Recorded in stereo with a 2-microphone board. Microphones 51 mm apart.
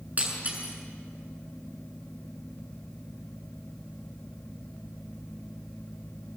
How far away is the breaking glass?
About 7.5 m.